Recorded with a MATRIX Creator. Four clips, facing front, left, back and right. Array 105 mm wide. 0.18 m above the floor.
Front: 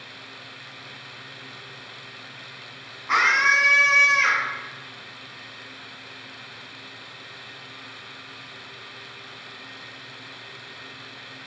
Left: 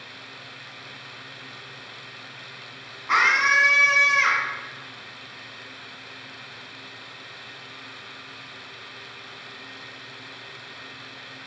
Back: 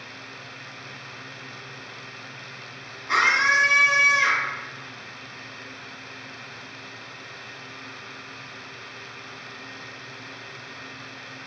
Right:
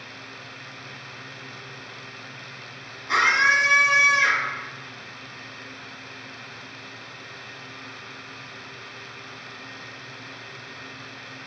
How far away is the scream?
About 1.3 m.